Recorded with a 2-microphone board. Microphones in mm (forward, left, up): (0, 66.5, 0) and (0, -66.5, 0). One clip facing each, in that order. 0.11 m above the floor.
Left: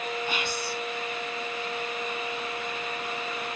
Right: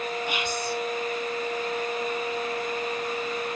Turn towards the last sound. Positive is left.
turn(degrees=-15)  # may be behind; listen again after turning